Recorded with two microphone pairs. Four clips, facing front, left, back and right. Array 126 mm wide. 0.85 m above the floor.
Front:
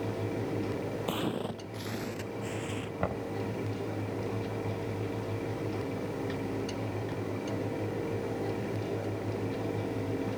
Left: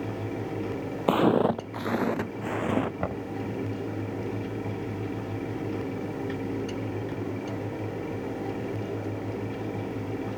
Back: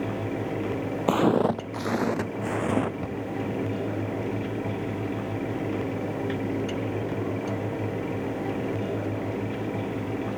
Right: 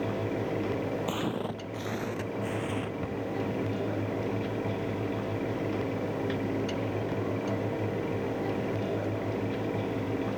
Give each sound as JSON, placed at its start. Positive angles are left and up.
{"t": 1.1, "sound": "footsteps", "azimuth_deg": 135}
{"t": 3.0, "sound": "knocking", "azimuth_deg": 60}